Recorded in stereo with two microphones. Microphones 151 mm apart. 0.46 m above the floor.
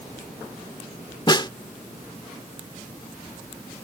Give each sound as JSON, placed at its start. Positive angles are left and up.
{"t": 1.3, "sound": "a snare drum", "side_deg": 30}